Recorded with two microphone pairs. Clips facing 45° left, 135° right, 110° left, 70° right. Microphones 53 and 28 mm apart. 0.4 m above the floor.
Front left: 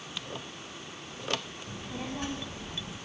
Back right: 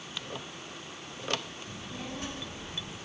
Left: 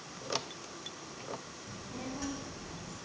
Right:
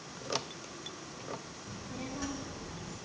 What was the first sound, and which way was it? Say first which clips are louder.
A child speaking: front left 4 dB, even; 25° left.